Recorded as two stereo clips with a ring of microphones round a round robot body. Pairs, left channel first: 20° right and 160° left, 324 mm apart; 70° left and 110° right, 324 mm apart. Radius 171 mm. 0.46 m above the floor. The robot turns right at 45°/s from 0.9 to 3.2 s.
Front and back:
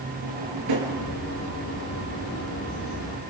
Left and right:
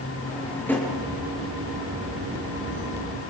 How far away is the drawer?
About 5.5 m.